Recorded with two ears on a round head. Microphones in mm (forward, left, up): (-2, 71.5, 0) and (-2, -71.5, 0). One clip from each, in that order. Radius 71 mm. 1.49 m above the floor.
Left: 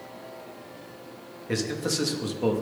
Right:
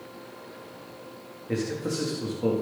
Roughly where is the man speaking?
Left.